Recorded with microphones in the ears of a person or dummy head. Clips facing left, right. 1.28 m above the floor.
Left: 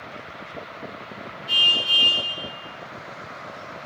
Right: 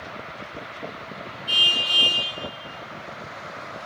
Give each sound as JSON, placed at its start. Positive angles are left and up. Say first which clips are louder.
{"t": 1.5, "sound": "a car horn", "louder": "even", "side_deg": -20, "distance_m": 7.5}